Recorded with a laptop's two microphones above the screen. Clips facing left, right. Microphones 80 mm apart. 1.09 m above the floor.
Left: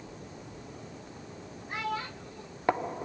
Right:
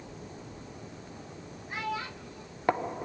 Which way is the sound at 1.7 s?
55° left (ahead or behind).